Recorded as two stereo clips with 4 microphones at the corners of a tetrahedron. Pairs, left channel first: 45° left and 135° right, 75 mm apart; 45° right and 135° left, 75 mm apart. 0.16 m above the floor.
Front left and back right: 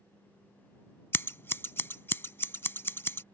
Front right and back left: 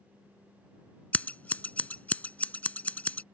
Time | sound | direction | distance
1.1 | scissors | 10° left | ?